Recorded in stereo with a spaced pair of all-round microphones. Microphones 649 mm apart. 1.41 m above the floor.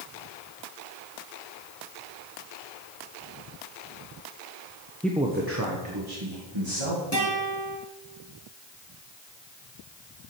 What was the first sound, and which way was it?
A man speaking, 5° left (ahead or behind).